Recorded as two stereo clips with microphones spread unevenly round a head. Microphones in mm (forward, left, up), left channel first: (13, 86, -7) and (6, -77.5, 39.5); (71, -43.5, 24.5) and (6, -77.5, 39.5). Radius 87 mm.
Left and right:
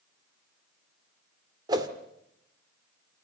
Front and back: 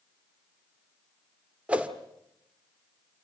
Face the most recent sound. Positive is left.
turn(degrees=-110)